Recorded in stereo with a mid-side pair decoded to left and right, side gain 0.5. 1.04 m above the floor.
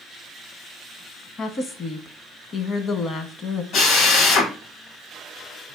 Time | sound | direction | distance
1.4 | a woman speaking | 45° left | 1.1 m
3.7 | a drill | 65° left | 1.8 m